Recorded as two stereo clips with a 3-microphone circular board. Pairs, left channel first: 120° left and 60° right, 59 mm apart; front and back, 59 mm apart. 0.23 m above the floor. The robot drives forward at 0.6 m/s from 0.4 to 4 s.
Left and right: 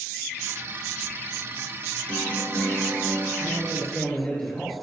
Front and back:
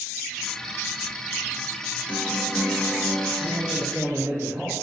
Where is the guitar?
50° left, 3.5 m; by 3.3 s 60° left, 3.5 m.